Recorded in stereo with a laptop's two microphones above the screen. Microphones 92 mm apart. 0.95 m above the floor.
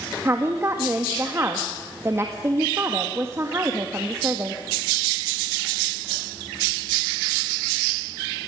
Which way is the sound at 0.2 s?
30° right (ahead or behind).